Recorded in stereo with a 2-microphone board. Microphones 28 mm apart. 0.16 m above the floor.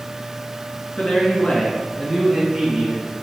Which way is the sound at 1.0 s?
55° left (ahead or behind).